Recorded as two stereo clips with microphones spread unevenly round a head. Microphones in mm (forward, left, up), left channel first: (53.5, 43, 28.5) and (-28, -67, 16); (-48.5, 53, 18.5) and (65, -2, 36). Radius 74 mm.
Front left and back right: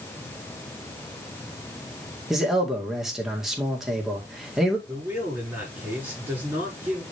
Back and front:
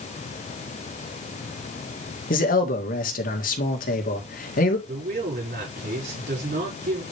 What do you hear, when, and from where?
2.3 s a man speaking: 145° left, 1.9 m
4.9 s a man speaking: 50° right, 5.5 m